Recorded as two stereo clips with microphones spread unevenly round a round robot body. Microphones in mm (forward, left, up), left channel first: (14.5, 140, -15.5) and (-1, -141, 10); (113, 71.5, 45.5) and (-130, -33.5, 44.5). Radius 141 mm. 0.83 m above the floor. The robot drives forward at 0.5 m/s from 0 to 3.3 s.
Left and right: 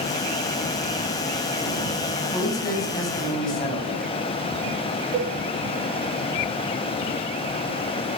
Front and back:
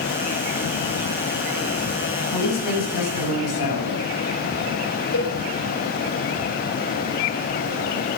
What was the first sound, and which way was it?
A man speaking, 10° left.